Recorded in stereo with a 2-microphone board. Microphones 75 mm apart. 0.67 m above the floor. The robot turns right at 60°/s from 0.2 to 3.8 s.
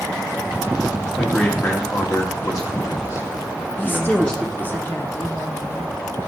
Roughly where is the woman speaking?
Left.